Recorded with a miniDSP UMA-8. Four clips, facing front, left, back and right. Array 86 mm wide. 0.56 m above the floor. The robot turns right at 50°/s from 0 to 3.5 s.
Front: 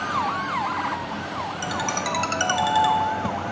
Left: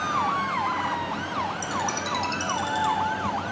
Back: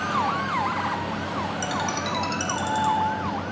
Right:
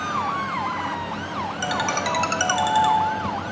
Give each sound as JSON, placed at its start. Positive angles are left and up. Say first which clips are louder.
{"t": 1.6, "sound": "a ringtone", "louder": "right 4 dB, front 1 dB", "azimuth_deg": -95, "distance_m": 1.2}